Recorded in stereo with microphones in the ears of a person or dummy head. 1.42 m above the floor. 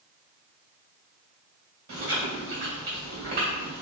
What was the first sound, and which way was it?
Chewing, 40° right (ahead or behind).